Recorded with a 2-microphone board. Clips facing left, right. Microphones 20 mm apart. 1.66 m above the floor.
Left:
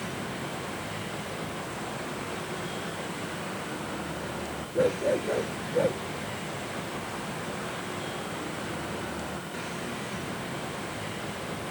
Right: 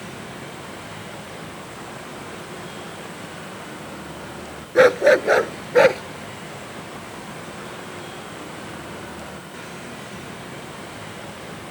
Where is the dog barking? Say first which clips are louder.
Right 12 dB; 85° right.